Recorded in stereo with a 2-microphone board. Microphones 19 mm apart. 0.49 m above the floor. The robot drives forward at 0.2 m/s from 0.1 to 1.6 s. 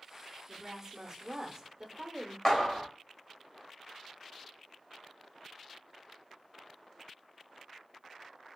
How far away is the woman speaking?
About 0.8 m.